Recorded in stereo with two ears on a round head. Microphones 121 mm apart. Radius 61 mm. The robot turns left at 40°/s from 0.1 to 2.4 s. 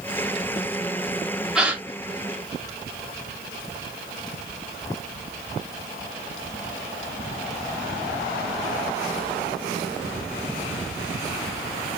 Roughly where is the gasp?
Centre.